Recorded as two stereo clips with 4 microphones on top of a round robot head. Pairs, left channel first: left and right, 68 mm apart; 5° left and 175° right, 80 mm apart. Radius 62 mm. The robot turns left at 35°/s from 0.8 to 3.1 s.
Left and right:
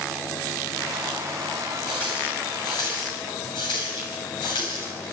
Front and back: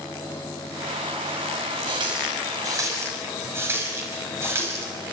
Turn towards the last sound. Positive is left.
turn(degrees=125)